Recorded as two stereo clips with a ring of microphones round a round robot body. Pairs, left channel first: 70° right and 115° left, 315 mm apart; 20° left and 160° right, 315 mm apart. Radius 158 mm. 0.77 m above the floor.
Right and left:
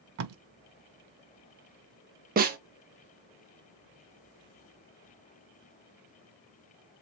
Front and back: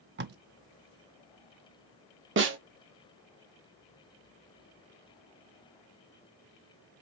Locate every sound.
0.2 s tape being pulled: 150° left, 0.6 m
2.4 s a snare drum: 165° left, 1.1 m